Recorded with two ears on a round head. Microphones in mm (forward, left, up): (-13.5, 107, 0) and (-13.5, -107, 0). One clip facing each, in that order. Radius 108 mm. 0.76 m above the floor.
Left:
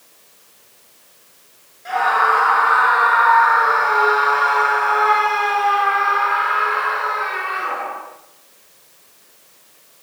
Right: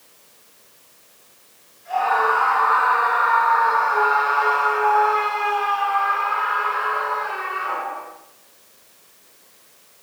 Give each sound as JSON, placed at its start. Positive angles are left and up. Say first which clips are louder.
{"t": 1.9, "sound": "a scream", "louder": "left 1 dB", "side_deg": 85, "distance_m": 9.0}